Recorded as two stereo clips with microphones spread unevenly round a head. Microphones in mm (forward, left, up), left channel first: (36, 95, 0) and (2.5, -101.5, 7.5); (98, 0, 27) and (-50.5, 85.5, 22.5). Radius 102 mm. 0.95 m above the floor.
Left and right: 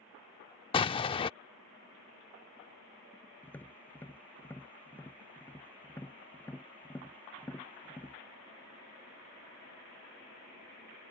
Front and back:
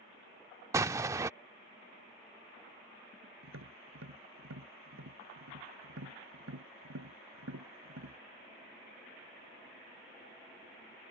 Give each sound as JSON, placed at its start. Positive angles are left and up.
{"t": 0.7, "sound": "an explosion", "azimuth_deg": 100}
{"t": 3.4, "sound": "tapping", "azimuth_deg": 160}